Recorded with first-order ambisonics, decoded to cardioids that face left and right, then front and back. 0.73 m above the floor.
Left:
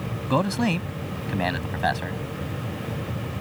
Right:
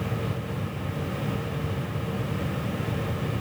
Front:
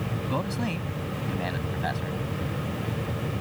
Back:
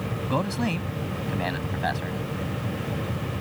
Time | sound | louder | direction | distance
0.3 | a man speaking | left 11 dB, back 4 dB | 100° left | ?